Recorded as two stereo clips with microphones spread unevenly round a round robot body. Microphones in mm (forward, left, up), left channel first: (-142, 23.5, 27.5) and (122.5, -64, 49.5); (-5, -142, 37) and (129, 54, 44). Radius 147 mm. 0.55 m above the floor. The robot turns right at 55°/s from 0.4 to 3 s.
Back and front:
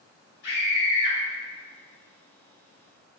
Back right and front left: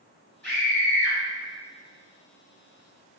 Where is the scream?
155° left, 1.7 m; by 1.2 s 165° right, 1.7 m.